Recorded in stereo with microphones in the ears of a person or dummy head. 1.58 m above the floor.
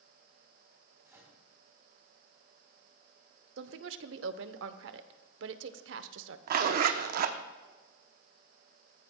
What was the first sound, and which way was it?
A microwave, 10° right (ahead or behind).